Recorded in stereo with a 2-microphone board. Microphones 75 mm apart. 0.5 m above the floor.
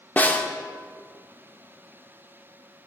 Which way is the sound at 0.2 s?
25° left (ahead or behind).